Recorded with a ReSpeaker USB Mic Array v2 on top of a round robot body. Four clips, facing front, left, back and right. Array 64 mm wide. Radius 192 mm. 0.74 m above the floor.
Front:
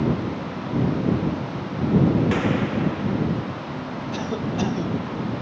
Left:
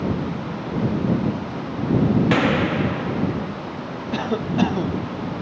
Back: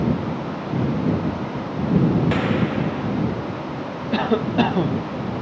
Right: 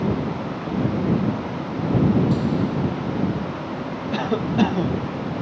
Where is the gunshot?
95° left.